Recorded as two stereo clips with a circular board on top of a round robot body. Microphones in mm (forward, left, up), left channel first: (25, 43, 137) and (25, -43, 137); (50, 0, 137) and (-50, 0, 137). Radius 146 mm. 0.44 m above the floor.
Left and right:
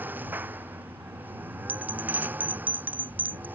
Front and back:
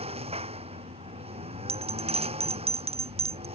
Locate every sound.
0.0 s a lawn mower: 160° right
1.7 s a bell: 160° right